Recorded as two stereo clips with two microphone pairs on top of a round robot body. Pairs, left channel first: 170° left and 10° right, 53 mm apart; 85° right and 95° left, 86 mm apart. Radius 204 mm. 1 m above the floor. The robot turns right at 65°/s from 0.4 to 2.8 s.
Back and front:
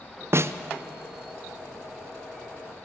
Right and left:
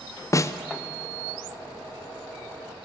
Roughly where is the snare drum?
Ahead right.